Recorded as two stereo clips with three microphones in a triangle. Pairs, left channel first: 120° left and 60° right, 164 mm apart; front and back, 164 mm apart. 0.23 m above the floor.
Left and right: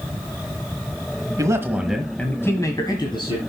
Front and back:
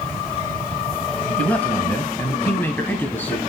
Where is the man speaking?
65° right, 1.2 m; by 3.4 s 75° left, 2.0 m.